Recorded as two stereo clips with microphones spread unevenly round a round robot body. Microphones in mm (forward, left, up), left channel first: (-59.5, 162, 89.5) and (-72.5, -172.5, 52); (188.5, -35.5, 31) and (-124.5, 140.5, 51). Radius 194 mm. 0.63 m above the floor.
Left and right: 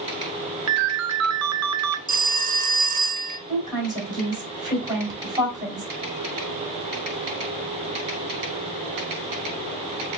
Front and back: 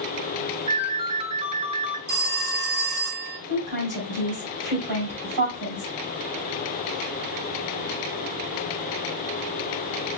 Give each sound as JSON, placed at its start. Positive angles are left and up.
{"t": 0.7, "sound": "a ringtone", "azimuth_deg": -130, "distance_m": 0.7}
{"t": 2.1, "sound": "a phone ringing", "azimuth_deg": -150, "distance_m": 0.8}
{"t": 3.5, "sound": "a woman speaking", "azimuth_deg": -170, "distance_m": 3.5}